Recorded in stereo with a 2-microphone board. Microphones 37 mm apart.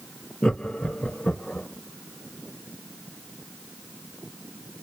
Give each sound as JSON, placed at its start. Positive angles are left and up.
{"t": 0.4, "sound": "laughter", "side_deg": 20, "distance_m": 0.5}